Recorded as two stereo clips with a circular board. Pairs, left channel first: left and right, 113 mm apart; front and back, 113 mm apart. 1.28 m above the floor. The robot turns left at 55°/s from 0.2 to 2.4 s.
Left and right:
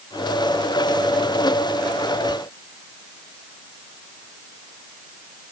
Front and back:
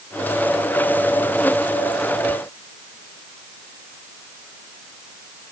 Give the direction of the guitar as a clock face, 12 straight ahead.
No guitar in this recording.